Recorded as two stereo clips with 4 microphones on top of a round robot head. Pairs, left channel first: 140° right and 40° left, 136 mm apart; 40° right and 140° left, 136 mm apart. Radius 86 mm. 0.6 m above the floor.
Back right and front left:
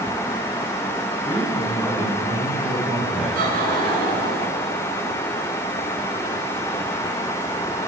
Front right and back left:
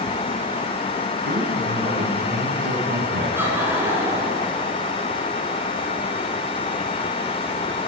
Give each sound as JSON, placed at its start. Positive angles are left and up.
{"t": 1.2, "sound": "a man speaking", "azimuth_deg": 115, "distance_m": 7.5}
{"t": 3.4, "sound": "laughter", "azimuth_deg": 65, "distance_m": 7.5}